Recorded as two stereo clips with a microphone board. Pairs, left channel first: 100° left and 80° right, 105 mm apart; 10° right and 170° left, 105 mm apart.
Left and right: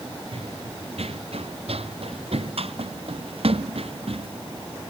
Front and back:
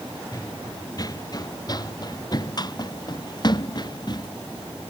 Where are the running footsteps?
65° right; by 4.3 s 55° right.